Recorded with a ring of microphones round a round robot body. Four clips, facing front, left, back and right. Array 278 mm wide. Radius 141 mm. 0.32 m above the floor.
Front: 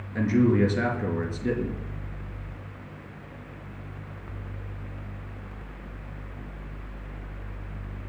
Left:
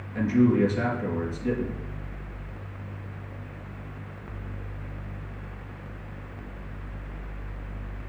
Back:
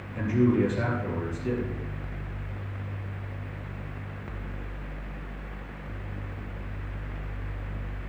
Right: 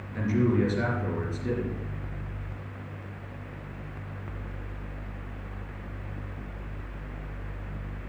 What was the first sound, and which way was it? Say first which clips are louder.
A man speaking: left 4 dB, front 2 dB; straight ahead.